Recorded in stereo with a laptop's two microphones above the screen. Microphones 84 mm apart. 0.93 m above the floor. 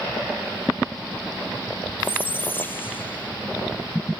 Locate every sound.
2.0 s a squeak: 25° left (ahead or behind), 0.6 m